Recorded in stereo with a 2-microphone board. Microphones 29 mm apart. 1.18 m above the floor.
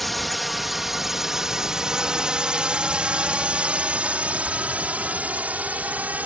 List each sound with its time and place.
0.0 s a drone: 5° left (ahead or behind); by 6.3 s 60° right (ahead or behind)